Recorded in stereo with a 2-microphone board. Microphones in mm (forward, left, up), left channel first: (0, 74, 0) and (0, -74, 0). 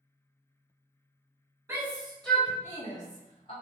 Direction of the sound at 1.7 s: 15° right (ahead or behind).